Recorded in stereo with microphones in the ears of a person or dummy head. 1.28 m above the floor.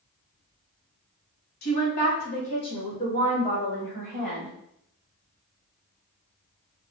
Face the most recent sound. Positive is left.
turn(degrees=5)  # may be behind; listen again after turning